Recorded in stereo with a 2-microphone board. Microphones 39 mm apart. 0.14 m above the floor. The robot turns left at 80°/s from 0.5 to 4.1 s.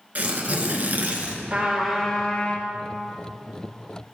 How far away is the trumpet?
About 2 m.